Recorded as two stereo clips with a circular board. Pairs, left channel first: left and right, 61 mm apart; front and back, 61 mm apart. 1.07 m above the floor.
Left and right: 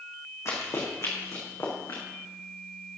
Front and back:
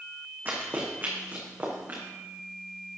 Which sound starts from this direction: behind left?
Running footsteps, at 0.5 s.